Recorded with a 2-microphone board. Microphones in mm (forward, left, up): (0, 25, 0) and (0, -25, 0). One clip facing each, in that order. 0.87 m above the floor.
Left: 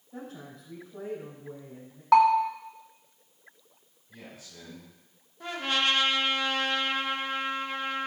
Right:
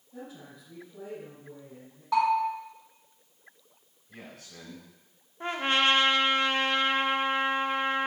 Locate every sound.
0.1 s a woman speaking: 55° left (ahead or behind), 5 m
2.1 s a bell: 80° left, 1.2 m
4.1 s a man speaking: 80° right, 5 m
5.4 s a trumpet: 35° right (ahead or behind), 0.8 m